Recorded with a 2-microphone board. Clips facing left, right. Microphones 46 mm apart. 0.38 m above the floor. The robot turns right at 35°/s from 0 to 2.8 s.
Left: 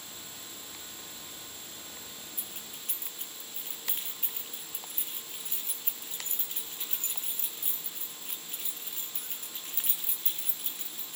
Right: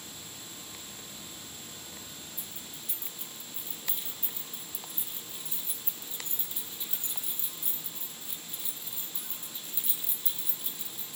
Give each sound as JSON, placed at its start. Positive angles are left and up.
{"t": 2.4, "sound": "keys jangling", "side_deg": 70, "distance_m": 3.0}